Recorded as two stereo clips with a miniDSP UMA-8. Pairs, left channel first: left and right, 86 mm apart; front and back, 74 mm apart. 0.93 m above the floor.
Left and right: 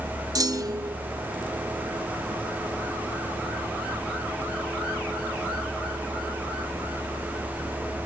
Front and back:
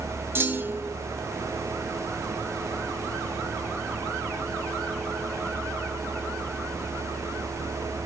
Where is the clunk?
125° right, 0.9 m.